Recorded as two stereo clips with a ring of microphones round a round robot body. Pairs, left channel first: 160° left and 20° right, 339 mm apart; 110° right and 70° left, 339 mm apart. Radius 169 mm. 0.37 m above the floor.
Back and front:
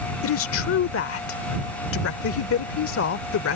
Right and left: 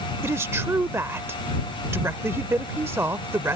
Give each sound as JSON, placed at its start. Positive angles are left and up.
{"t": 0.2, "sound": "a woman speaking", "azimuth_deg": 145}